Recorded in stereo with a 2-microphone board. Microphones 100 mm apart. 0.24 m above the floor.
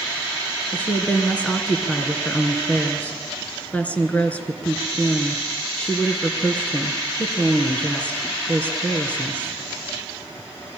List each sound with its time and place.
0.7 s a woman speaking: 15° left (ahead or behind), 3 m